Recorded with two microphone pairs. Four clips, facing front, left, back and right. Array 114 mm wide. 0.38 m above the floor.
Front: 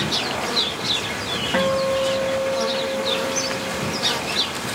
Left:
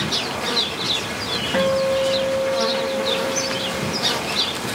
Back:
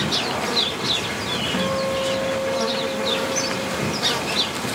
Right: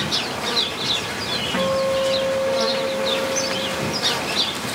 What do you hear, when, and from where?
1.5 s a guitar: 30° left, 3 m